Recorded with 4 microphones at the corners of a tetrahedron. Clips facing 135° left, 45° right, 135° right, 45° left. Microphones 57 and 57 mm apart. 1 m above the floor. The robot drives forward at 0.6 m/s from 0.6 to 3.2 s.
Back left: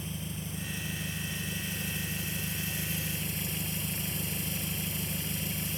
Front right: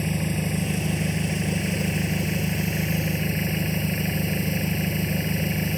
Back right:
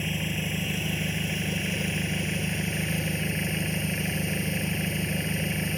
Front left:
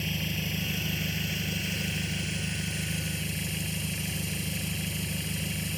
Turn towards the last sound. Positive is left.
turn(degrees=-85)